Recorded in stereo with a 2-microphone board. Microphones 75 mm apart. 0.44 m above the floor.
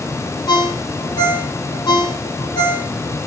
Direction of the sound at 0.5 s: 70° left (ahead or behind).